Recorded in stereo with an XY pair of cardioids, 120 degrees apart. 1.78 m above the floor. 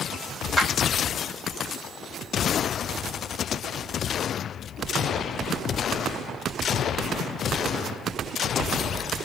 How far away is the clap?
About 3.5 m.